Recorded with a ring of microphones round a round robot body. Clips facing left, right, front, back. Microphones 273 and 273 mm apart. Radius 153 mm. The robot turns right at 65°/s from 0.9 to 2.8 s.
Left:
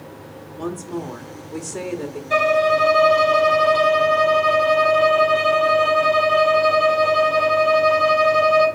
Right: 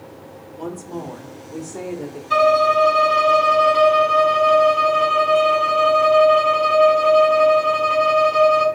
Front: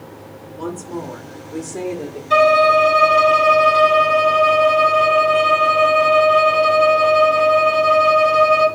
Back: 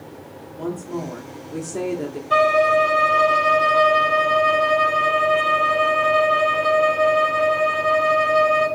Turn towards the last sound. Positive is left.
turn(degrees=-15)